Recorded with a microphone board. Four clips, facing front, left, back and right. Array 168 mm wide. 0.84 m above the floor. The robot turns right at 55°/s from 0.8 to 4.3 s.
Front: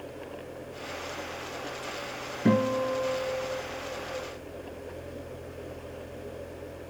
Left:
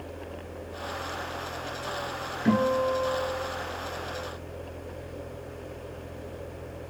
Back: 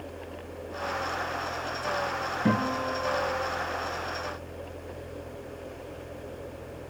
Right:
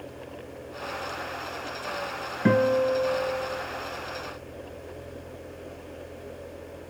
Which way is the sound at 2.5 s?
95° right.